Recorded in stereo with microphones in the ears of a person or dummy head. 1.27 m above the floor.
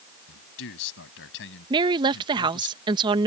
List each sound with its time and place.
0.3 s a man speaking: 65° left (ahead or behind)
1.7 s a woman speaking: 25° right (ahead or behind)